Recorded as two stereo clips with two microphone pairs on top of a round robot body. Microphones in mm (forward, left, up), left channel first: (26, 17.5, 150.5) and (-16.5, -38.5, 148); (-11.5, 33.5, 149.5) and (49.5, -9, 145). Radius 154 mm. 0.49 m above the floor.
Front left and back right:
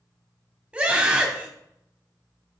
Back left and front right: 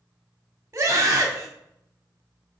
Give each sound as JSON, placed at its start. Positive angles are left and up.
{"t": 0.7, "sound": "a scream", "azimuth_deg": -65, "distance_m": 1.5}